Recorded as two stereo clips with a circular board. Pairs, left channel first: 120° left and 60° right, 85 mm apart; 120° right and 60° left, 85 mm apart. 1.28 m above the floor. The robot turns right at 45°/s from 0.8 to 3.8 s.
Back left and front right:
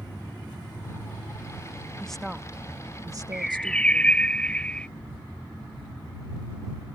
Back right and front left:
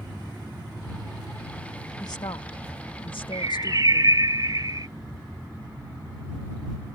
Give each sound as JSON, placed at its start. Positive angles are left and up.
{"t": 2.0, "sound": "a woman speaking", "azimuth_deg": -160}
{"t": 3.3, "sound": "a bird", "azimuth_deg": 25}